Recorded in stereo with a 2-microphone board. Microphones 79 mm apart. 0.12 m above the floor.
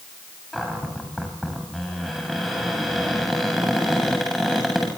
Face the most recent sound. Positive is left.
turn(degrees=0)  # may be behind; listen again after turning